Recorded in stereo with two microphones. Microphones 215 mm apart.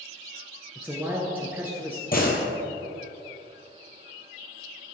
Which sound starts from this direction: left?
A door slam, at 2.1 s.